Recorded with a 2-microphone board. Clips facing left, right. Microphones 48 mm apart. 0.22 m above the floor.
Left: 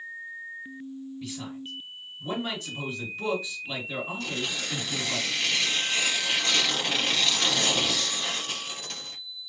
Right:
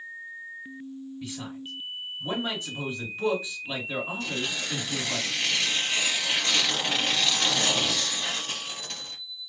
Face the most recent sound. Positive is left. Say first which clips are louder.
# right 1 dB
turn(degrees=-5)  # may be behind; listen again after turning